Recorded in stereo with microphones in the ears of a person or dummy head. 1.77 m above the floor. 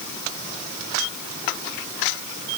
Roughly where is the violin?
I don't hear a violin.